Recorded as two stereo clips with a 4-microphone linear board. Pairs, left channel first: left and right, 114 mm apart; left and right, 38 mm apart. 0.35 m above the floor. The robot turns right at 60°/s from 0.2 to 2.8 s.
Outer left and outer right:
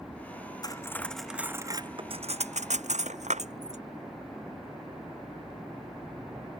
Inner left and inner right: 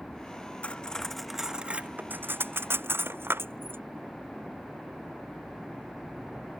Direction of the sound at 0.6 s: 35° left (ahead or behind).